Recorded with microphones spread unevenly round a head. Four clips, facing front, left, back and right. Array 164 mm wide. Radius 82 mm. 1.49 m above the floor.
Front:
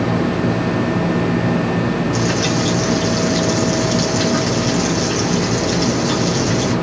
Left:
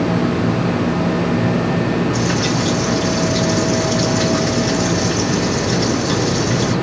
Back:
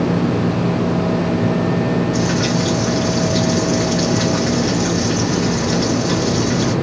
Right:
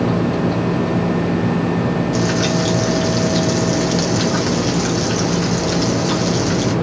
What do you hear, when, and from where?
2.1 s frying: 85° right, 1.9 m